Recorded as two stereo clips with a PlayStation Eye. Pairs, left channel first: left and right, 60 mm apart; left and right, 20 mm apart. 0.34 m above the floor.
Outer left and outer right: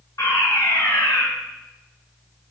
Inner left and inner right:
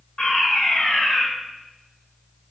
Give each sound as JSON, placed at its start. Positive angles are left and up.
{"t": 0.2, "sound": "a fire alarm", "side_deg": 70, "distance_m": 7.0}